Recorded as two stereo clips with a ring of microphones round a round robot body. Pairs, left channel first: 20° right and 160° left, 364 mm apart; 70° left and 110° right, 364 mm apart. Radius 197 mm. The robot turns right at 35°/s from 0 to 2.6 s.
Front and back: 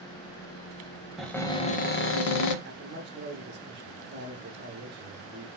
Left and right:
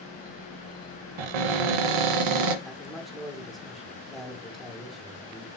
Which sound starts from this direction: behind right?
A cupboard door, at 1.2 s.